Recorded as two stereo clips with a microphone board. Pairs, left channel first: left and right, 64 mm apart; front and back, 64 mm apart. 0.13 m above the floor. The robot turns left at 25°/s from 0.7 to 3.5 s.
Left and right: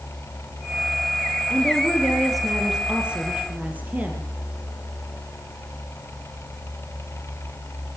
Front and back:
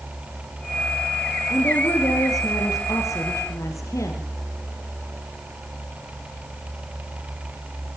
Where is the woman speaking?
20° left, 3.5 m; by 4.3 s 30° right, 3.5 m.